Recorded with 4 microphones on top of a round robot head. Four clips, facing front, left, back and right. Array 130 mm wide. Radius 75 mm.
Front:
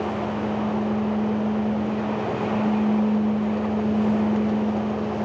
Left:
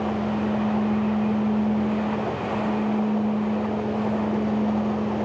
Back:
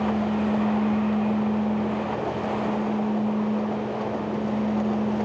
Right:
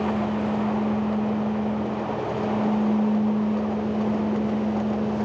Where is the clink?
I don't hear a clink.